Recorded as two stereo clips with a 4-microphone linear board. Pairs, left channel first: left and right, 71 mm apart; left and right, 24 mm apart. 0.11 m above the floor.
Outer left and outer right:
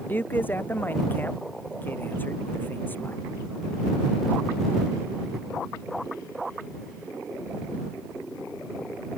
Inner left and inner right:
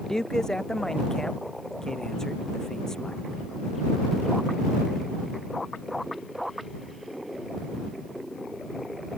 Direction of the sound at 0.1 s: 25° left (ahead or behind).